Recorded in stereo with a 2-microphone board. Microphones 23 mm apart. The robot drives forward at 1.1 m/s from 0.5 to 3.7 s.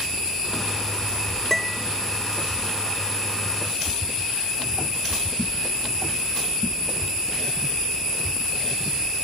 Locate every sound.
1.5 s a piano: 15° left (ahead or behind)